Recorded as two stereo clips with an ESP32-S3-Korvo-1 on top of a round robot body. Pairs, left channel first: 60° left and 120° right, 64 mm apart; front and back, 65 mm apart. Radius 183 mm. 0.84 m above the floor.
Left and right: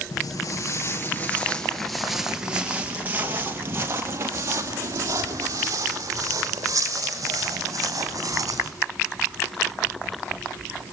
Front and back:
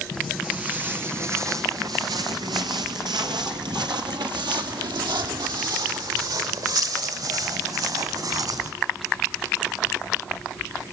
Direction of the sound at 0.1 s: 90° left.